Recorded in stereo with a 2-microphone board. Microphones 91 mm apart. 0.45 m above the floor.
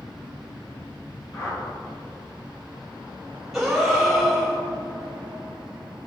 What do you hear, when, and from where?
1.3 s a whoosh: 40° left (ahead or behind), 2 m
3.5 s a gasp: centre (ahead or behind), 1.8 m